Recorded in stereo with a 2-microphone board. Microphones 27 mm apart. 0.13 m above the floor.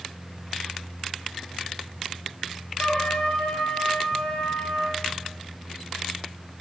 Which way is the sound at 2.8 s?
55° left (ahead or behind).